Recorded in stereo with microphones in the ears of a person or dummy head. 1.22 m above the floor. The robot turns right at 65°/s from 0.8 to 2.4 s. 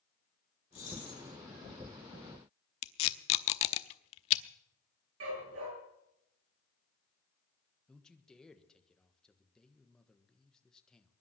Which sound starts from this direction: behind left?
Keys jangling, at 0.7 s.